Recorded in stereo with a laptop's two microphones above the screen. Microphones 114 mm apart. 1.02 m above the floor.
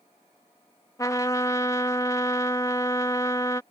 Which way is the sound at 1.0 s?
30° left (ahead or behind).